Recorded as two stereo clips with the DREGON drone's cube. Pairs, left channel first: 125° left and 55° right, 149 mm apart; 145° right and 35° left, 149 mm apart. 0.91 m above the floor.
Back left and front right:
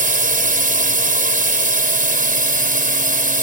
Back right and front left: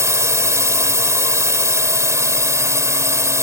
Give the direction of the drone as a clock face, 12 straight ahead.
1 o'clock.